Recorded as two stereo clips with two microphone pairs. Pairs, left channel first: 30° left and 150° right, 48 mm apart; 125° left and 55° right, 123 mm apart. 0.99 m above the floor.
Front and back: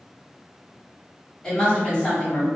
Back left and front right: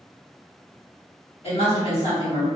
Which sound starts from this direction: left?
A woman speaking, at 1.4 s.